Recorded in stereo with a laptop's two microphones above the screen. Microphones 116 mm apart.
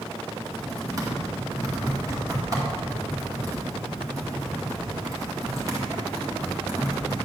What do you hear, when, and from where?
0.3 s typing on a keyboard: 30° right (ahead or behind), 2 m